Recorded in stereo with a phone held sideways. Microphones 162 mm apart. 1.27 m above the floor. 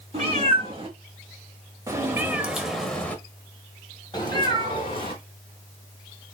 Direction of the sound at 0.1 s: 40° right (ahead or behind).